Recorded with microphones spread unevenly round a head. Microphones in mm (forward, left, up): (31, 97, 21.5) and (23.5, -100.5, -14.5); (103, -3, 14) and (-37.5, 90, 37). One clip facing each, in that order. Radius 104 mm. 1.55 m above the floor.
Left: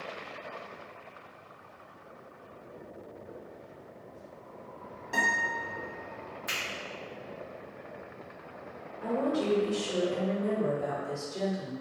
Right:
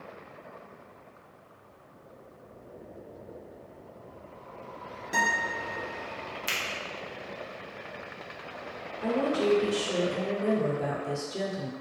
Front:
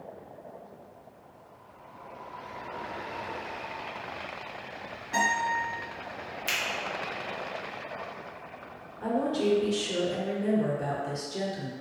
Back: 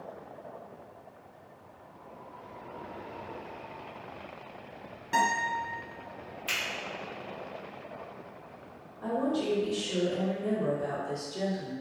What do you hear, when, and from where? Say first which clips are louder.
5.1 s a guitar: right 2 dB, even; 165° right, 0.9 m
6.5 s a finger snap: right 2 dB, front 2 dB; 50° right, 0.7 m
9.0 s a woman speaking: right 3 dB, front 2 dB; 50° right, 0.9 m